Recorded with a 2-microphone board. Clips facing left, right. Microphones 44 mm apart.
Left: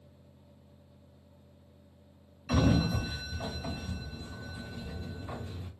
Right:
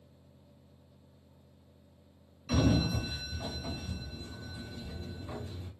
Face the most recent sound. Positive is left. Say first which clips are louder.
# left 1 dB
turn(degrees=25)  # may be behind; listen again after turning